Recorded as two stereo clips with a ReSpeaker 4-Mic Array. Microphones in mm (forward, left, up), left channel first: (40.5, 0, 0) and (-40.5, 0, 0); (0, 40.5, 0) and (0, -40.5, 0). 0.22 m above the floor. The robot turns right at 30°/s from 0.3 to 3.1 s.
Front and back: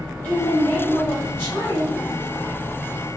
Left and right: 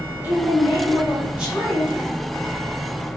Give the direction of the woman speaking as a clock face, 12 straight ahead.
2 o'clock.